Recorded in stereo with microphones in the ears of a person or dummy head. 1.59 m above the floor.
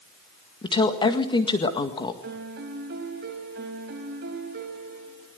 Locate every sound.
0.6 s a woman speaking: 25° left (ahead or behind), 1.9 m
2.2 s a piano: 60° right (ahead or behind), 2.5 m